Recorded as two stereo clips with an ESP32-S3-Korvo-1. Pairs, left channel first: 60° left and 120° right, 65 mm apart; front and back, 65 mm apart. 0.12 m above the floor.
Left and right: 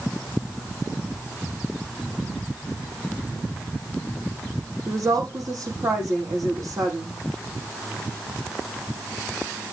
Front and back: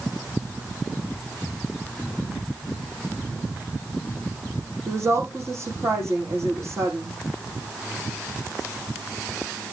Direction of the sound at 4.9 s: 145° right.